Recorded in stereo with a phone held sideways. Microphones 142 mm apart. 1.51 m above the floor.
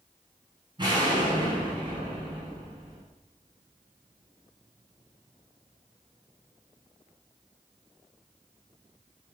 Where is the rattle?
I don't hear a rattle.